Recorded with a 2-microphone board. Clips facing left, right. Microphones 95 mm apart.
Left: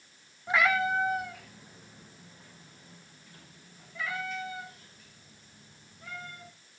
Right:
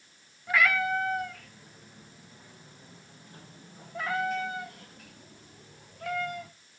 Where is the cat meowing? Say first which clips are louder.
Even; 25° left (ahead or behind), 2.5 m; by 6.5 s 70° right (ahead or behind), 3.5 m.